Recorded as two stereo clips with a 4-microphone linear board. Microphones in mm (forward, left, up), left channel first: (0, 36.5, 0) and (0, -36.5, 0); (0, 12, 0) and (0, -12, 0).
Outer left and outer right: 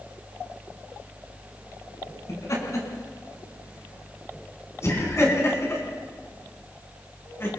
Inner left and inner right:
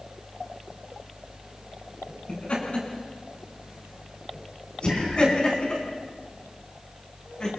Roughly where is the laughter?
Left.